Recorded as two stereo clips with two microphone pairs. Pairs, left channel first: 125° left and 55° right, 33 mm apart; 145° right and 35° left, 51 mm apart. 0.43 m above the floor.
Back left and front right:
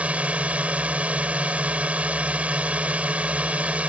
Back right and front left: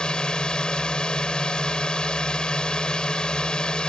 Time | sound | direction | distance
0.0 | a drone | 75° right | ?